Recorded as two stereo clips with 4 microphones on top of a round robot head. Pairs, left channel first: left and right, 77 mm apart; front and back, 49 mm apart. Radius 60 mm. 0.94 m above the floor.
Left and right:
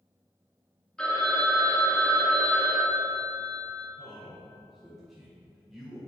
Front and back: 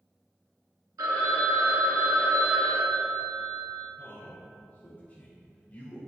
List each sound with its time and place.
1.0 s a phone ringing: 170° left, 0.9 m
4.0 s a man speaking: 5° right, 0.6 m